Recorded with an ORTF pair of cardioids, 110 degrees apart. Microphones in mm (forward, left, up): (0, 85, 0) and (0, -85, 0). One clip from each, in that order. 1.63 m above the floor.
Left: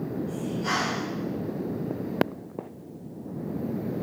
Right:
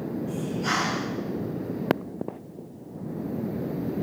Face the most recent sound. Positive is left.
turn(degrees=-20)